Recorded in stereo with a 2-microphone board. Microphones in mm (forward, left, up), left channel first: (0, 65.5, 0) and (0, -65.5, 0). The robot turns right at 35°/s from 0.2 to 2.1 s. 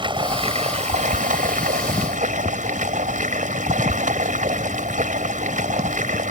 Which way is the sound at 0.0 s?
140° right.